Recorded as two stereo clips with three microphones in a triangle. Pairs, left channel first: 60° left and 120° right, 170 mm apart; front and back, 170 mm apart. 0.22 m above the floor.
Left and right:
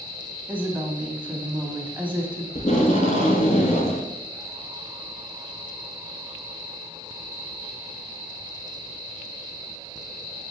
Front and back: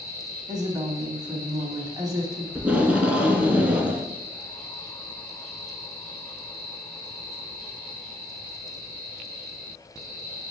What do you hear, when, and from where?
0.5 s a woman speaking: straight behind, 1.0 m
2.5 s tape being pulled: 100° left, 1.0 m